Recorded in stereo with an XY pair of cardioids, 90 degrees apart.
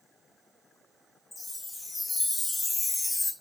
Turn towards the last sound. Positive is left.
turn(degrees=20)